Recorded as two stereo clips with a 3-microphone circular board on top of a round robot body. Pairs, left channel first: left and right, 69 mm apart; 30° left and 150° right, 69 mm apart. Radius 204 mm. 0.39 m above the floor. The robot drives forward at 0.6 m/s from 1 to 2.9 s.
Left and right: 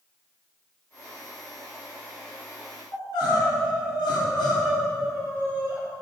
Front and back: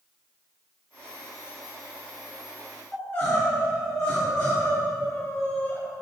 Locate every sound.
2.9 s crying: 90° left, 3 m